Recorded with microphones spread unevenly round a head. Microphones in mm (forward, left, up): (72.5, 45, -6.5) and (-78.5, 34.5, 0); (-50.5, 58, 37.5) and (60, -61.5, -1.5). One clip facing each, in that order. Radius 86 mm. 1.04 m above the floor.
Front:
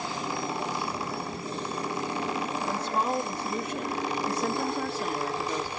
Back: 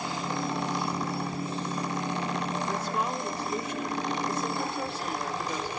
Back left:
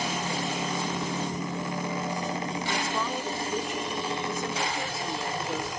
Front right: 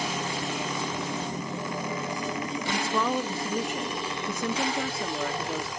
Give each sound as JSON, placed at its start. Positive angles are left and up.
{"t": 2.7, "sound": "a woman speaking", "azimuth_deg": -65, "distance_m": 1.8}